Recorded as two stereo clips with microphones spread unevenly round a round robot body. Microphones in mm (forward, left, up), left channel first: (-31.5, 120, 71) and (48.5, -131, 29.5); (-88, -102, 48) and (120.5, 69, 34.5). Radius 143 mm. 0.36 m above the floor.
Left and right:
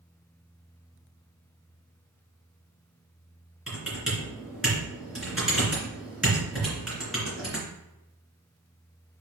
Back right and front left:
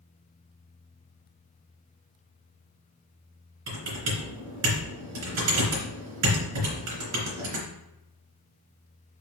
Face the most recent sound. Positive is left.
turn(degrees=15)